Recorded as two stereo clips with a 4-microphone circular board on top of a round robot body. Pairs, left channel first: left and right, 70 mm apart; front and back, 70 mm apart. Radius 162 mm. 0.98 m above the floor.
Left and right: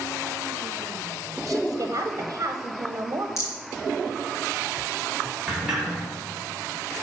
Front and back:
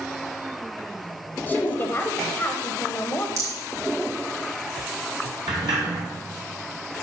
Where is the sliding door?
175° right, 0.8 m.